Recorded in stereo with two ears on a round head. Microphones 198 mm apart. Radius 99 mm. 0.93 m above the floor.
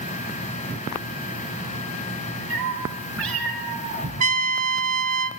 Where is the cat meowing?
60° right (ahead or behind), 5 m; by 4.1 s 80° right, 6 m.